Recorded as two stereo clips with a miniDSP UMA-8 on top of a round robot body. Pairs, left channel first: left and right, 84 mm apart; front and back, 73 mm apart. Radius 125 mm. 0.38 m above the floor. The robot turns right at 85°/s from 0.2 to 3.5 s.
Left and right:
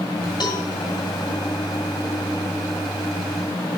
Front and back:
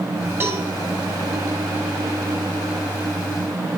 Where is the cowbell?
125° left, 2.5 m; by 0.6 s 145° left, 2.5 m.